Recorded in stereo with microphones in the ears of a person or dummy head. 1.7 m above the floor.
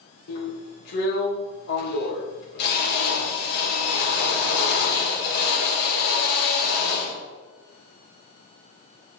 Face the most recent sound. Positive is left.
turn(degrees=60)  # may be behind; listen again after turning